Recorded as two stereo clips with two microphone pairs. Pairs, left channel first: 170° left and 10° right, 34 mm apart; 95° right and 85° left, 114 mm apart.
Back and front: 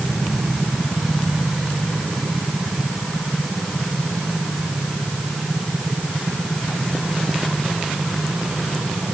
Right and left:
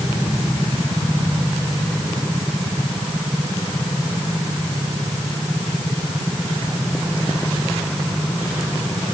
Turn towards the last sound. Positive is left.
No sound to turn to.